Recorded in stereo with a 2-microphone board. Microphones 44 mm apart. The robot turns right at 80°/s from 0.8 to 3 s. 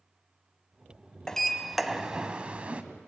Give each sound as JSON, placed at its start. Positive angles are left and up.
{"t": 1.3, "sound": "a sliding door", "side_deg": 15, "distance_m": 1.2}